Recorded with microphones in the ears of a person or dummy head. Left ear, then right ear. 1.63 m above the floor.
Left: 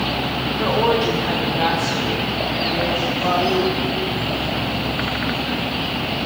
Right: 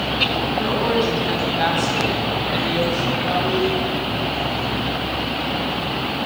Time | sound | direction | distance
0.6 | a woman speaking | 25° left (ahead or behind) | 1.2 m
3.2 | a toilet flushing | 80° left | 1.1 m